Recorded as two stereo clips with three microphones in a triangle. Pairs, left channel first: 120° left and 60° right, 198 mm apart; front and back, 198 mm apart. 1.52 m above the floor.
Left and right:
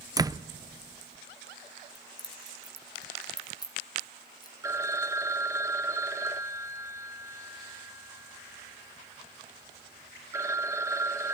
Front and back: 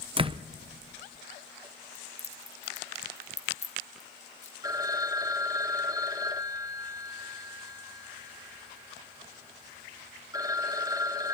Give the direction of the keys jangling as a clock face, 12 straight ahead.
10 o'clock.